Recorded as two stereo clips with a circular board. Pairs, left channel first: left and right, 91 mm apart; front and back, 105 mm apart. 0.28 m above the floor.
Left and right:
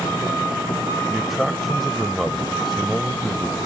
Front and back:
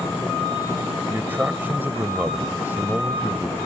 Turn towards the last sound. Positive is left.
turn(degrees=180)